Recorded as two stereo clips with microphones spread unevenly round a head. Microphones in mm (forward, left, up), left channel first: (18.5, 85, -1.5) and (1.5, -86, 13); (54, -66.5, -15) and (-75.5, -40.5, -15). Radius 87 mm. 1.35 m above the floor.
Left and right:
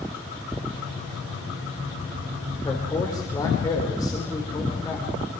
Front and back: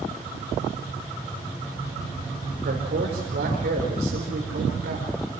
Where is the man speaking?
155° left, 4 m.